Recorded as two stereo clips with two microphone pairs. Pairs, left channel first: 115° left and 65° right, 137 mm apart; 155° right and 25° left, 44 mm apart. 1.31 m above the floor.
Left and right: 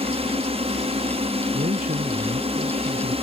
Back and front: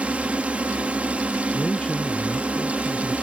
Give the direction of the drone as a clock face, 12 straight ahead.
1 o'clock.